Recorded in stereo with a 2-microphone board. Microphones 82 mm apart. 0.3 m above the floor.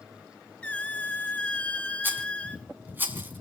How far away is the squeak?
About 1.0 m.